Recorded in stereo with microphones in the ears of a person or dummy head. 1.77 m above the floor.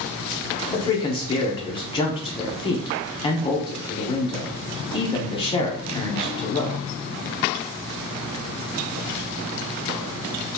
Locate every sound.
0.7 s a man speaking: 30° left (ahead or behind), 0.7 m